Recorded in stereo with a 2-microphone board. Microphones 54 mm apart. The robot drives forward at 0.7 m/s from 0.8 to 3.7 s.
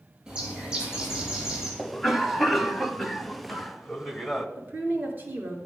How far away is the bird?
About 6 m.